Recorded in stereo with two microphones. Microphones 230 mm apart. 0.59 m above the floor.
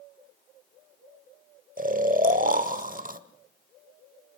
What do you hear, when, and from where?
1.8 s snoring: 35° right (ahead or behind), 0.9 m